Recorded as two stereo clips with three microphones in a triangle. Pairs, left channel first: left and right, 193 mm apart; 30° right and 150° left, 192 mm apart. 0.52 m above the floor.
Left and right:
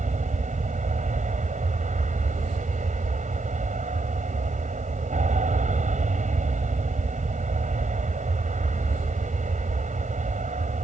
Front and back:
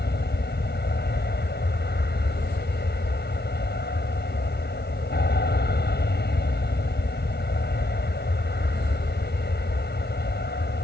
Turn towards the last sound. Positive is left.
turn(degrees=-45)